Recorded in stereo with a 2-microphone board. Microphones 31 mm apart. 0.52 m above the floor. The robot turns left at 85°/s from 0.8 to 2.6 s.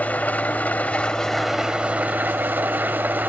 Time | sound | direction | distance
0.0 | an engine running | 55° left | 1.8 m